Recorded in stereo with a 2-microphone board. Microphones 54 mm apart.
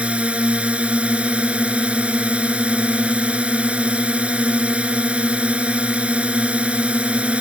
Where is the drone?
25° right (ahead or behind).